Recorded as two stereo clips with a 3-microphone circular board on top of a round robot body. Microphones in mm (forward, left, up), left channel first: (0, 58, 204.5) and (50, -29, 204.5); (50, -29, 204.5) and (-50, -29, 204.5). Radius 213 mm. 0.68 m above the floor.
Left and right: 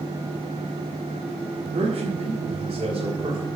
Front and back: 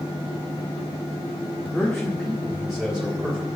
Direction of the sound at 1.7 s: 85° right.